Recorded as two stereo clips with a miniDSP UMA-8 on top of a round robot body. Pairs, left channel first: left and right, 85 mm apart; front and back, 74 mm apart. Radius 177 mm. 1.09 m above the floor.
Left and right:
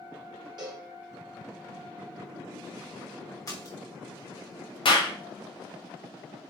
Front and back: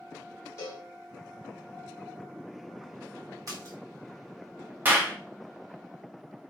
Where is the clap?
115° left, 0.8 m.